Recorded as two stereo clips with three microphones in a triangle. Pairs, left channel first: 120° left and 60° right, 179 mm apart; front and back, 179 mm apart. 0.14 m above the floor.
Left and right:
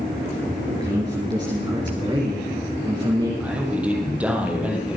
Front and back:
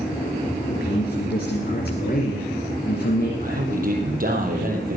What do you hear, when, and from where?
0.7 s a man speaking: straight ahead, 3 m
3.4 s a man speaking: 145° right, 4.5 m